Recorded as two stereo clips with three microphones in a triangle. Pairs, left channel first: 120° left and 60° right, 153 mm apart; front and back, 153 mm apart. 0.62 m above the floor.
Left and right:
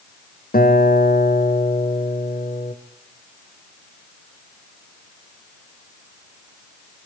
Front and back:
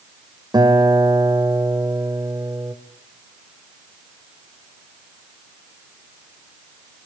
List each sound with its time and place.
0.5 s a guitar: 120° left, 2.0 m